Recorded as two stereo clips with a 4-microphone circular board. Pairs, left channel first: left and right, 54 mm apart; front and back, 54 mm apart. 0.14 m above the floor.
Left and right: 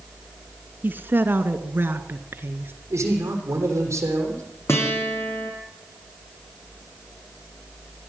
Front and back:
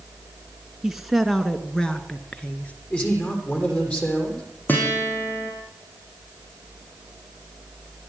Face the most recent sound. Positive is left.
turn(degrees=55)